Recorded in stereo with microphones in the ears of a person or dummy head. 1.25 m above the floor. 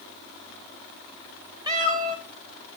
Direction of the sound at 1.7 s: 20° right (ahead or behind).